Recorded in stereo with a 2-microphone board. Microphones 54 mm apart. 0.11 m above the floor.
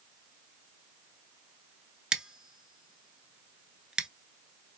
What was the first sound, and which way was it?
Scissors, 15° right (ahead or behind).